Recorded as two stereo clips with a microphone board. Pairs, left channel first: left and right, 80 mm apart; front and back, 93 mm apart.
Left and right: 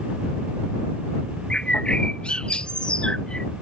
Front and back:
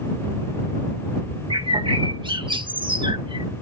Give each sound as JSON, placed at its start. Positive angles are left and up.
{"t": 1.5, "sound": "a bird", "azimuth_deg": 165}